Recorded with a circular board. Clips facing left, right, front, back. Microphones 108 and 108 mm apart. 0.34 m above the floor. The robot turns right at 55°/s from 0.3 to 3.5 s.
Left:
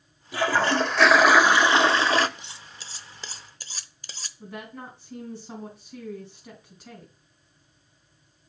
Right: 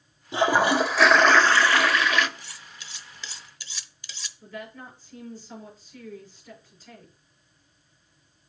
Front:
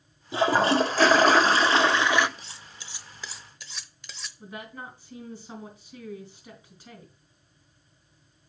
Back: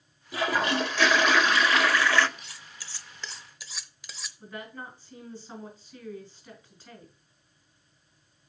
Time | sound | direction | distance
0.3 | a toilet flushing | 40° right | 0.6 m
2.4 | cutlery clinking | 30° left | 0.7 m
4.4 | a woman speaking | 70° left | 5 m